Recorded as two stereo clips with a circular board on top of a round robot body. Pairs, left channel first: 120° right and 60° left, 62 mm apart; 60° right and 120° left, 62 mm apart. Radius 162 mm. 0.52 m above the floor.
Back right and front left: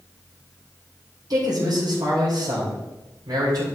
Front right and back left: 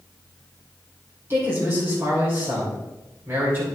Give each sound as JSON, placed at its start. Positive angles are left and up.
{"t": 1.3, "sound": "a man speaking", "azimuth_deg": 65, "distance_m": 3.5}